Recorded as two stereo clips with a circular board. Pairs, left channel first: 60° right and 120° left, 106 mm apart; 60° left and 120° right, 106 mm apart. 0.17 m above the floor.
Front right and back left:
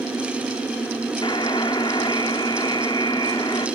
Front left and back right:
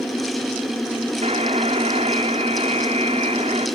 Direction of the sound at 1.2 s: 110° right.